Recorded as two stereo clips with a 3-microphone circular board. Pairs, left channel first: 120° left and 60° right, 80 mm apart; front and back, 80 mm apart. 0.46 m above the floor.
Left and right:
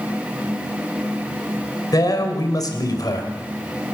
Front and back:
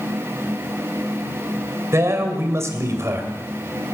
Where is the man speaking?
135° left, 2.5 m.